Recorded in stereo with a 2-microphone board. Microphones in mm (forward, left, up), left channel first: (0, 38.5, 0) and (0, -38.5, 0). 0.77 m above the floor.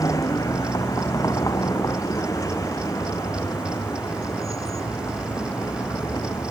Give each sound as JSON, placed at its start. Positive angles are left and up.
{"t": 0.0, "sound": "a vehicle", "side_deg": 45}